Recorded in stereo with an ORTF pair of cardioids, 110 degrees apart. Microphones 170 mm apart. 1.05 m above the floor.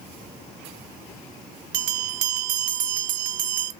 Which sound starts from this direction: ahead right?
A bell, at 1.7 s.